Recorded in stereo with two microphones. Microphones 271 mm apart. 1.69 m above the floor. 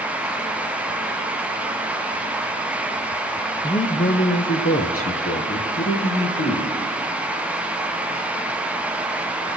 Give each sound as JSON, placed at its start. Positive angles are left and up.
{"t": 3.6, "sound": "a man speaking", "side_deg": 15, "distance_m": 0.7}